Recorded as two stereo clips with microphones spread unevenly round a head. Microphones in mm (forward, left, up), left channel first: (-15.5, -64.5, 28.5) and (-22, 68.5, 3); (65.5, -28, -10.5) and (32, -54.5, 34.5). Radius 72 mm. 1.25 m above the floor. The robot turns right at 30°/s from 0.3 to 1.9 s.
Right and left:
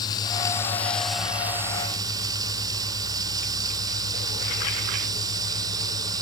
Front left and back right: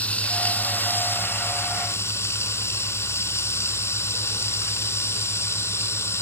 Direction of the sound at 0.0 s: 20° right.